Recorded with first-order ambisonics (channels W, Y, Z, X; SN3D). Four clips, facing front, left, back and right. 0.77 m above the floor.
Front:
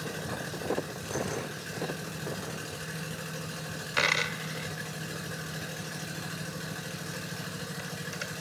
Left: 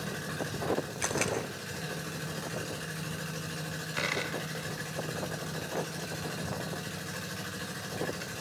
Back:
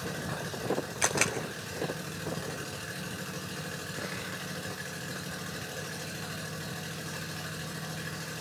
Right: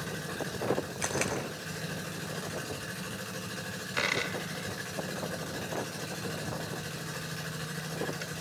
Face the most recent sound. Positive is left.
turn(degrees=-10)